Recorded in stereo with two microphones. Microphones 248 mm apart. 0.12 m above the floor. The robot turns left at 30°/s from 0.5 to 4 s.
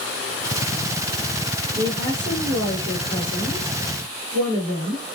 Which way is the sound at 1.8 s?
60° right.